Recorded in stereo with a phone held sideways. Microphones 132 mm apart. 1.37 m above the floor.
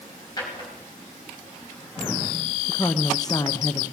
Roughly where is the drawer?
Left.